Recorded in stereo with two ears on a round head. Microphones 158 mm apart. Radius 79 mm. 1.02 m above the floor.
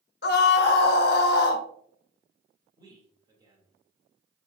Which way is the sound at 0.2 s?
65° left (ahead or behind).